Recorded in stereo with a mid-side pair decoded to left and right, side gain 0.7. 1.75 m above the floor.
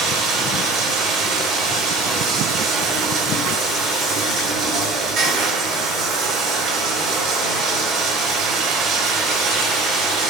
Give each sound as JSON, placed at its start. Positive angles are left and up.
{"t": 0.0, "sound": "running water", "azimuth_deg": -45, "distance_m": 4.0}